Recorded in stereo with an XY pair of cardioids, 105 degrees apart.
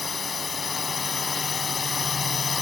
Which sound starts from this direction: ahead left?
A drone, at 0.0 s.